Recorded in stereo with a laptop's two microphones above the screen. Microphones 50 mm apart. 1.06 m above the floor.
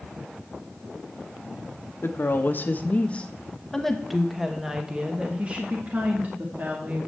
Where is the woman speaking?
55° left (ahead or behind), 1.2 m; by 7.1 s 40° right (ahead or behind), 2 m.